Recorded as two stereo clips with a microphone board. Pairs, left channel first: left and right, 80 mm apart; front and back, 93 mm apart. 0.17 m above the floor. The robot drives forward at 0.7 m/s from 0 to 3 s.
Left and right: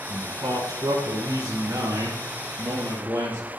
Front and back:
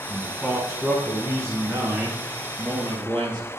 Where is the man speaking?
75° right, 1.5 m; by 3.5 s 150° right, 2.5 m.